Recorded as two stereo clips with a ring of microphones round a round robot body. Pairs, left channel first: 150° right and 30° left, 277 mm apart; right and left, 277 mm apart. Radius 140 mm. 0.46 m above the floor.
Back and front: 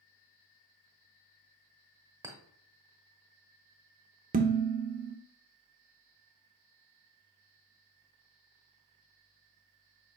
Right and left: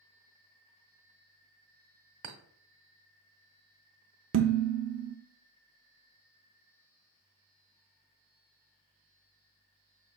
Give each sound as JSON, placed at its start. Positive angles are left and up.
{"t": 2.2, "sound": "a clink", "azimuth_deg": 110, "distance_m": 0.8}
{"t": 4.3, "sound": "dishes clattering", "azimuth_deg": 80, "distance_m": 0.5}